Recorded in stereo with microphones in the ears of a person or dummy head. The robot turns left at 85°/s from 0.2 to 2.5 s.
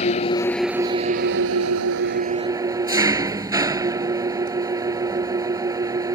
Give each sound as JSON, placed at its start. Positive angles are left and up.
{"t": 0.0, "sound": "an engine running", "azimuth_deg": 35}